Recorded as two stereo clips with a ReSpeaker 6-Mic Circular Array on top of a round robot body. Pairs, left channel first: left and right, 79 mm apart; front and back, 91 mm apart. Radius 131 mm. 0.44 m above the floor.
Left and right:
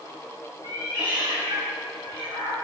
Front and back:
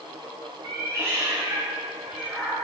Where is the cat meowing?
125° right, 2.5 m; by 2.5 s 100° right, 3 m.